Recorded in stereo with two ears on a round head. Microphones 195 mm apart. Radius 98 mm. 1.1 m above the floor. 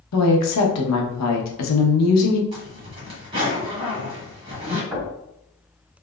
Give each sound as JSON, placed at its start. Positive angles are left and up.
{"t": 0.1, "sound": "a woman speaking", "side_deg": 80, "distance_m": 0.9}
{"t": 2.5, "sound": "a zipper", "side_deg": -25, "distance_m": 1.4}
{"t": 4.9, "sound": "knocking", "side_deg": -10, "distance_m": 2.0}